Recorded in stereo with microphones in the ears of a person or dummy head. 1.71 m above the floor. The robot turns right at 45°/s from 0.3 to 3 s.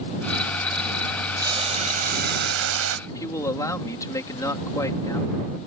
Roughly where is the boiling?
Behind.